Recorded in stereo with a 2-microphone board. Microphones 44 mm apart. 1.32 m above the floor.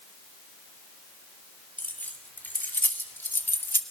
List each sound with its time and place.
1.8 s keys jangling: 40° left (ahead or behind), 3 m; by 3.8 s 55° left (ahead or behind), 1.8 m